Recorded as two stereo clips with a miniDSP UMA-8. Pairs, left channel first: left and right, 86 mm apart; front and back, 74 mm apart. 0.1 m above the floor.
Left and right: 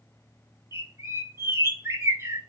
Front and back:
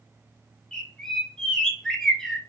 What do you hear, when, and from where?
0.7 s a bird: 75° right, 0.5 m